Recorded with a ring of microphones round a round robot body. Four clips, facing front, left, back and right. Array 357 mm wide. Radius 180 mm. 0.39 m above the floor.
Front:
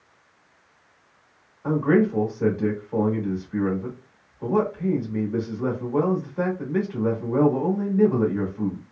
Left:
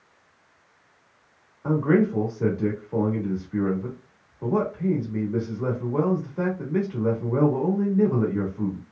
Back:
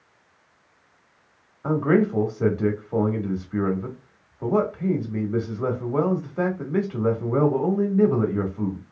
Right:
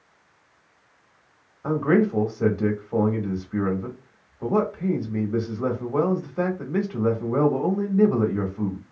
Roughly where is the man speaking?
Behind right.